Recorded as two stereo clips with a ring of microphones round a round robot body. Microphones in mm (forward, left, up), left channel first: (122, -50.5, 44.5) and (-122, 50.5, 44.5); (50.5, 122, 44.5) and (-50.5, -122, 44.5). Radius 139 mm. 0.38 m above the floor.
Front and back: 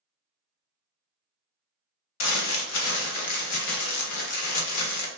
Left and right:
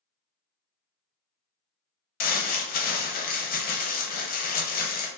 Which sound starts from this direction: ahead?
Crumpling, at 2.2 s.